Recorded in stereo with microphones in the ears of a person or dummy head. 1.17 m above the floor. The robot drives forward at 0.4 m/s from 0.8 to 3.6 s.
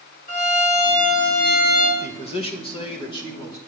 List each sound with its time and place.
0.3 s a violin: 40° left (ahead or behind), 1.9 m; by 1.9 s 35° left (ahead or behind), 2 m
2.0 s a man speaking: 30° left (ahead or behind), 0.7 m; by 3.6 s 15° left (ahead or behind), 1.3 m